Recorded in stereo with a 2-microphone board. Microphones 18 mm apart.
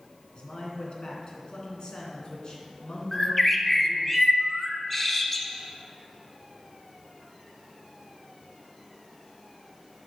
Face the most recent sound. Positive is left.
turn(degrees=10)  # may be behind; listen again after turning